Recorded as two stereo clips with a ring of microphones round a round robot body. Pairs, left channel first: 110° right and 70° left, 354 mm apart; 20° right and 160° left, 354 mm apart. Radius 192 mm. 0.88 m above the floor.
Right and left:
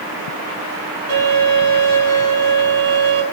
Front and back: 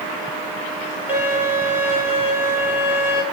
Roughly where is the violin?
Left.